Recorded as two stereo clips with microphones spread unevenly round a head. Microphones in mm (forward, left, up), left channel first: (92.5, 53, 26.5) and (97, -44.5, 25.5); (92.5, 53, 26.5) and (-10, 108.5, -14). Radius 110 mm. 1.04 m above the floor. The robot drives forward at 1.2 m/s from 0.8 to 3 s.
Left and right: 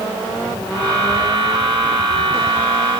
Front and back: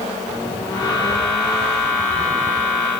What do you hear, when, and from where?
Only background noise.